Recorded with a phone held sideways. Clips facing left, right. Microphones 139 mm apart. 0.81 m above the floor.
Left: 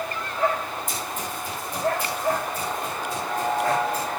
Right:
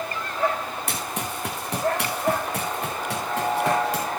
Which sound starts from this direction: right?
Running footsteps, at 0.9 s.